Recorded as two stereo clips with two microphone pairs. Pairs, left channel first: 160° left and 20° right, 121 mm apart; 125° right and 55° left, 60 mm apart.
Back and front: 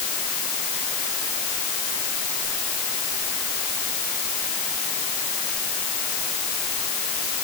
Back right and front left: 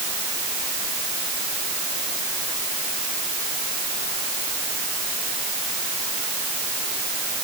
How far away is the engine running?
I don't hear an engine running.